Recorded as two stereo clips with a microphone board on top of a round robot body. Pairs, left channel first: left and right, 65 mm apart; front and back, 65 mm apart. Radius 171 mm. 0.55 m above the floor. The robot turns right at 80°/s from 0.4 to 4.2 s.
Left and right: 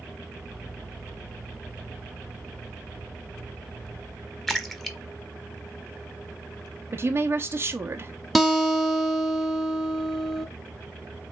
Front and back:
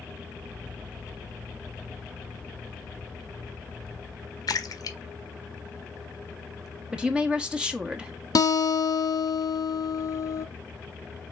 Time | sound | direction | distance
4.5 | a splash | 5° left | 1.0 m
6.9 | a woman speaking | 110° right | 1.1 m
8.3 | a guitar | straight ahead | 1.1 m